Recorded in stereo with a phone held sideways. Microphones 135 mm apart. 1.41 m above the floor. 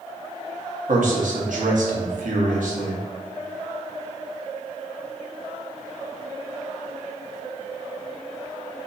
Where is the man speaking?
80° right, 1.0 m.